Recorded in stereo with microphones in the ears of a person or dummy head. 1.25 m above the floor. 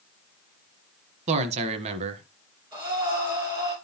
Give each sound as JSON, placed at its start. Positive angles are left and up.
{"t": 1.3, "sound": "a man speaking", "side_deg": -35, "distance_m": 1.0}
{"t": 2.7, "sound": "breathing", "side_deg": -25, "distance_m": 4.0}